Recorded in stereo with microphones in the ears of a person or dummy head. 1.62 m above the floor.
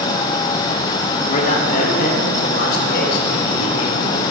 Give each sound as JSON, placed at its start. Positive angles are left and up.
{"t": 1.3, "sound": "a man speaking", "side_deg": 40, "distance_m": 3.5}